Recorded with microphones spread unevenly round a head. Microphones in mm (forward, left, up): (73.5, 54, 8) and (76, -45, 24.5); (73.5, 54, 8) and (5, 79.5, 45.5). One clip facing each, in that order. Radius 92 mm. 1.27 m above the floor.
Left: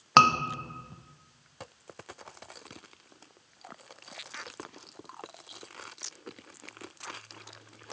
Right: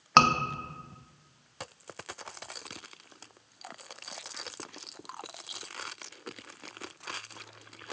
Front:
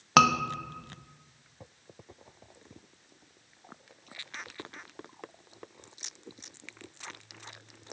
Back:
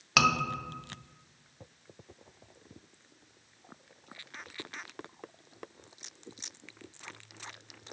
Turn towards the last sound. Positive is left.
turn(degrees=5)